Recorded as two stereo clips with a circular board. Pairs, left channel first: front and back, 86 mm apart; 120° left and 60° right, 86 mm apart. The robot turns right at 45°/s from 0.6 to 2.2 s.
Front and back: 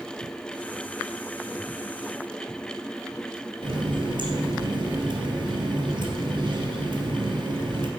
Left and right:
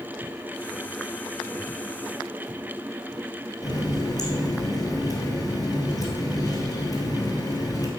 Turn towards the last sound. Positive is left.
turn(degrees=165)